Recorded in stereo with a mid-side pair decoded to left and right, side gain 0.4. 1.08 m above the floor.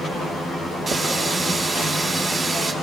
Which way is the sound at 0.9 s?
45° right.